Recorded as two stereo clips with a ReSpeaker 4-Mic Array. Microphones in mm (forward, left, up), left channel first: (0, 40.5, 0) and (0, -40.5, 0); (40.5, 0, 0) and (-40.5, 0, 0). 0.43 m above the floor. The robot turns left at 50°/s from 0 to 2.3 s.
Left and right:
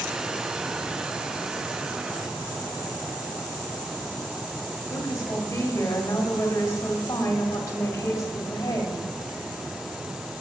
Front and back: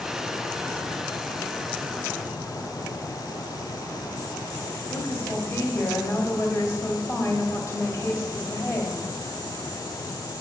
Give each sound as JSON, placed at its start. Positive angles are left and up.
{"t": 4.9, "sound": "a woman speaking", "azimuth_deg": 45, "distance_m": 1.5}